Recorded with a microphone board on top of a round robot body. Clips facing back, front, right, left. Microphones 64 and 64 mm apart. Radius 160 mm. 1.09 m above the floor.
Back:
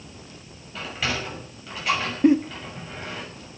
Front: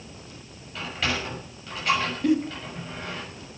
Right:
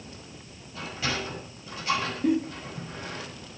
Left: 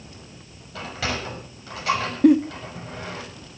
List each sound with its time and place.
0.8 s a sliding door: 95° left, 6.5 m
2.2 s a giggle: 115° left, 1.3 m